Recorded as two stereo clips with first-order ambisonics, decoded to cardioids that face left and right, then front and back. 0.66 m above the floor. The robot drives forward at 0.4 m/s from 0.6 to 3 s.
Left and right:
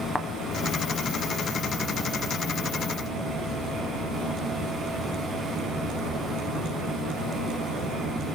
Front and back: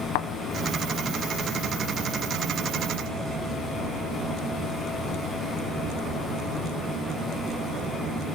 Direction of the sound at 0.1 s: Straight ahead.